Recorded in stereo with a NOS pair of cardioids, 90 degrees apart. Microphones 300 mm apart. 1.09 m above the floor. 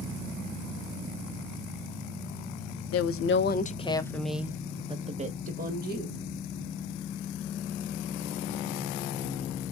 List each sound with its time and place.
2.9 s a woman speaking: 60° left, 0.7 m; by 6.2 s 35° right, 1.5 m